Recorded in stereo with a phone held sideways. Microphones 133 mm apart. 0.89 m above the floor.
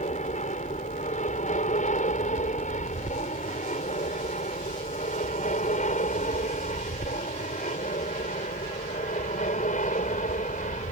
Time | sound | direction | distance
0.0 | an aircraft | 60° left (ahead or behind) | ?